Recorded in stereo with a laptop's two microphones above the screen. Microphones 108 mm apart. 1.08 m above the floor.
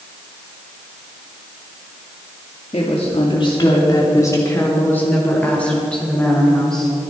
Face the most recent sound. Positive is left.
turn(degrees=5)  # may be behind; listen again after turning